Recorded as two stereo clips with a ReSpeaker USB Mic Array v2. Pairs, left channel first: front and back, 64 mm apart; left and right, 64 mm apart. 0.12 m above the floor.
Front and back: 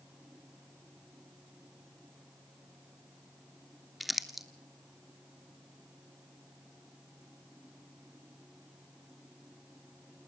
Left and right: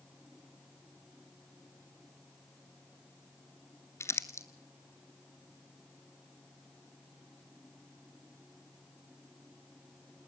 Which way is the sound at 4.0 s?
95° left.